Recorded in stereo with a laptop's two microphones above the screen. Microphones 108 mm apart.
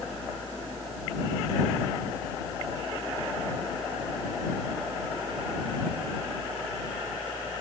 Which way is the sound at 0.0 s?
Centre (ahead or behind).